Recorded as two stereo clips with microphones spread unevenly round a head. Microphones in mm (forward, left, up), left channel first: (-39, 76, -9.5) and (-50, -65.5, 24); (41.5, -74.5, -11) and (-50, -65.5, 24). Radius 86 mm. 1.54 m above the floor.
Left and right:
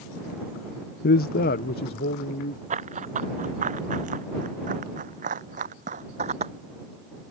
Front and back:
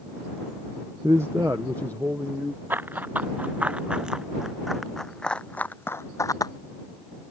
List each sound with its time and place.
1.0 s a man speaking: 100° left; by 2.6 s 95° left
2.7 s running footsteps: 125° right; by 6.5 s 60° right